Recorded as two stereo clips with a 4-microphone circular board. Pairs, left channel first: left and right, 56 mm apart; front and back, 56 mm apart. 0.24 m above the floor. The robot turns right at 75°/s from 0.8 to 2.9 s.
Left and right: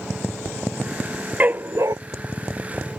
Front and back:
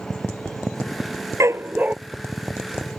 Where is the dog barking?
155° right; by 2.0 s 110° right.